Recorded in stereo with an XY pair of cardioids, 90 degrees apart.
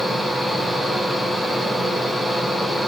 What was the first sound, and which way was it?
A fan, 10° left.